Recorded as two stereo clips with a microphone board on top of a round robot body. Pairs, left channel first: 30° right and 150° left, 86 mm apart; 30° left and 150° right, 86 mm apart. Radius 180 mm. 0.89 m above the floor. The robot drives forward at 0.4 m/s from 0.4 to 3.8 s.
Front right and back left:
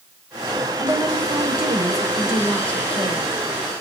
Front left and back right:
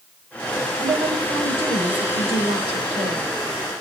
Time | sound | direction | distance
0.8 | a woman speaking | 160° right | 4 m